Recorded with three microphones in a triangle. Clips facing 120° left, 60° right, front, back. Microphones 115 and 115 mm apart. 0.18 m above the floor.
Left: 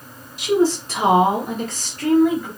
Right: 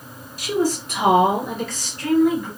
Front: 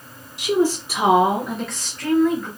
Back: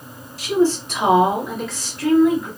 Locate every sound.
0.4 s a woman speaking: 60° left, 1.3 m; by 2.5 s 105° left, 2 m